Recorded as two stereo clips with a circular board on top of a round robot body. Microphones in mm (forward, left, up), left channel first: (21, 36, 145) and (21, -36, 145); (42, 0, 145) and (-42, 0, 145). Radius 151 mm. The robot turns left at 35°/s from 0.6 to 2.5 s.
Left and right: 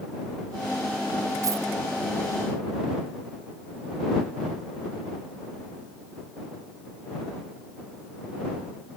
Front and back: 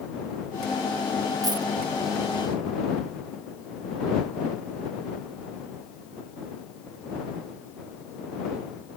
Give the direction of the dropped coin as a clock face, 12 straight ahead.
5 o'clock.